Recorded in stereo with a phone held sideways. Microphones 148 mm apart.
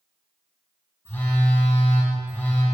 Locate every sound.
1.1 s a phone buzzing: 15° left (ahead or behind), 2.5 m